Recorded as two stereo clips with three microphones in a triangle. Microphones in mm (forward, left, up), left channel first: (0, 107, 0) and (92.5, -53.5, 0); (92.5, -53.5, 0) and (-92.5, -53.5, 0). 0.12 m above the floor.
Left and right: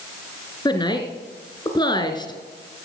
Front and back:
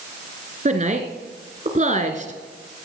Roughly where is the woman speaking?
Behind.